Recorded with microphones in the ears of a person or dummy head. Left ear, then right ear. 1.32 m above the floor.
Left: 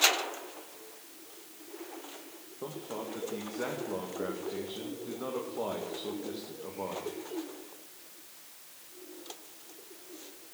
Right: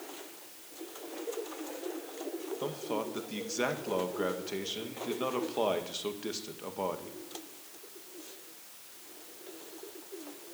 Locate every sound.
2.6 s a man speaking: 65° right (ahead or behind), 1.9 m